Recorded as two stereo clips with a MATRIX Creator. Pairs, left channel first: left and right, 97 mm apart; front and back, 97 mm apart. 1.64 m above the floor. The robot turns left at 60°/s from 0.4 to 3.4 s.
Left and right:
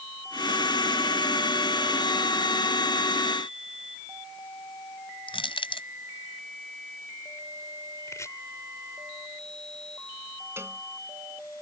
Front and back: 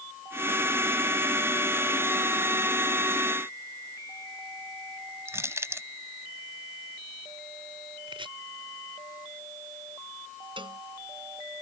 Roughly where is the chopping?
Behind left.